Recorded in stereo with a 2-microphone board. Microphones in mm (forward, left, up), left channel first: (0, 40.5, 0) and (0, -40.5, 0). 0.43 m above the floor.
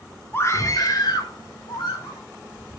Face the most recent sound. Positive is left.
turn(degrees=75)  # may be behind; listen again after turning